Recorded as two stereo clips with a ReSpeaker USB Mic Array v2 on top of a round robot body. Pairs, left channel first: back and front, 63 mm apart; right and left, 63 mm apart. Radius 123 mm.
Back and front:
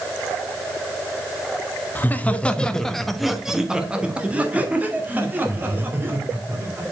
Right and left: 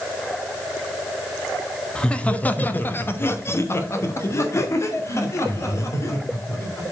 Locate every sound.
1.9 s laughter: 155° right, 1.4 m; by 6.9 s 50° right, 3.5 m